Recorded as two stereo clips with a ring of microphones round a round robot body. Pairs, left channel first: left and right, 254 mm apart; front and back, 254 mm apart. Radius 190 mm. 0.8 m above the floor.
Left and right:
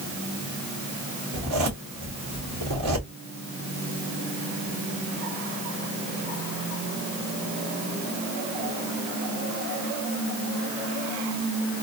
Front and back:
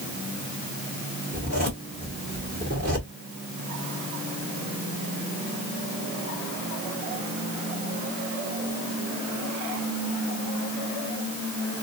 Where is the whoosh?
I don't hear a whoosh.